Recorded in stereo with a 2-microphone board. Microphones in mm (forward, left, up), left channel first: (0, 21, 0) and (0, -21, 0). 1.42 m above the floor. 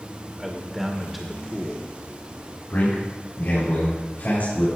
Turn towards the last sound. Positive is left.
turn(degrees=50)  # may be behind; listen again after turning